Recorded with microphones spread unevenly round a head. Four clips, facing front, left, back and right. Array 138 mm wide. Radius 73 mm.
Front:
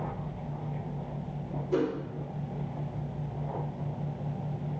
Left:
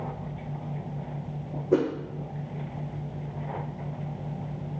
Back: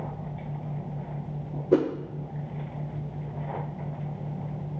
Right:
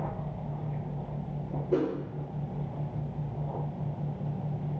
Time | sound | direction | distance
1.7 | a whoosh | 155° left | 0.8 m